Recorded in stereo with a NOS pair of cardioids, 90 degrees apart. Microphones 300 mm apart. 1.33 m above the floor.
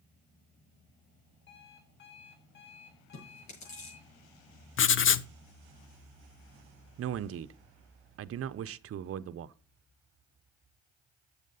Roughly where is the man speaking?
Ahead right.